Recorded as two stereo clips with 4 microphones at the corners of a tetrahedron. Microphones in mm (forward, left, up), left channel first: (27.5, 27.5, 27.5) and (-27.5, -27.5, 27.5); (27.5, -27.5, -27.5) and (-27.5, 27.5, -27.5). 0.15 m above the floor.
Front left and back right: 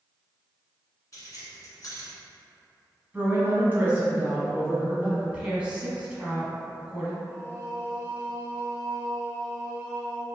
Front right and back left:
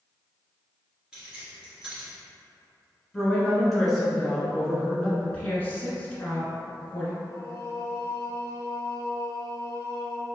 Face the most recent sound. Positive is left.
turn(degrees=-10)